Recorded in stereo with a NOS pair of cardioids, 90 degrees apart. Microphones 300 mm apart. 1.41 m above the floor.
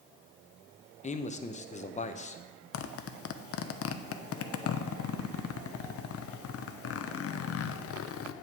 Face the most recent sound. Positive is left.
turn(degrees=50)